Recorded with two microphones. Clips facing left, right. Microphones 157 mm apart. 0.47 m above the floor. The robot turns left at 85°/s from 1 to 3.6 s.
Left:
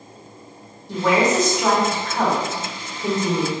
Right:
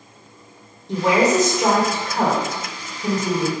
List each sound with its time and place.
0.9 s a woman speaking: 30° right, 1.5 m; by 3.5 s 120° left, 1.5 m